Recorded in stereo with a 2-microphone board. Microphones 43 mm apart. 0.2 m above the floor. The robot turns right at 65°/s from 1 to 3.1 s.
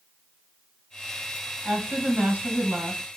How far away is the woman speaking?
About 1.4 m.